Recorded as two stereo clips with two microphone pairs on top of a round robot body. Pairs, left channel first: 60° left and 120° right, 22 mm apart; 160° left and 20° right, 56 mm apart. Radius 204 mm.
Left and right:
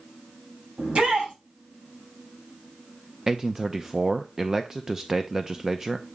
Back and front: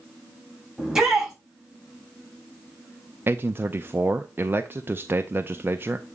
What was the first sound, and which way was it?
A shout, 95° right.